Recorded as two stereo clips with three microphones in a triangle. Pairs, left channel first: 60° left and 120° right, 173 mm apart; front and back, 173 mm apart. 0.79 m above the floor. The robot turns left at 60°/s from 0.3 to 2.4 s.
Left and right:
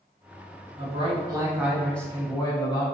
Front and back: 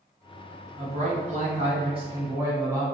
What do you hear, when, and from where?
0.8 s a man speaking: 150° right, 1.3 m; by 2.9 s 115° left, 1.3 m